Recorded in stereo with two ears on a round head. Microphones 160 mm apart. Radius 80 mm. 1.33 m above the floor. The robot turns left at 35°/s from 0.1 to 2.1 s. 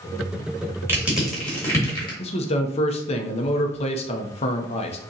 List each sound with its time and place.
0.9 s crushing: 15° right (ahead or behind), 2 m; by 2.2 s 30° left (ahead or behind), 2 m
2.2 s a man speaking: 35° left (ahead or behind), 0.7 m